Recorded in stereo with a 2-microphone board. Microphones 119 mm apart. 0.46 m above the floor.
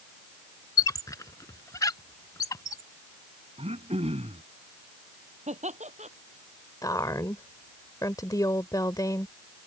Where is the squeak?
30° left (ahead or behind).